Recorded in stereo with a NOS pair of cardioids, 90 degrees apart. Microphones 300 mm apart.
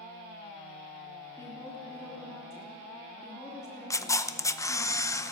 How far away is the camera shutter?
About 0.8 m.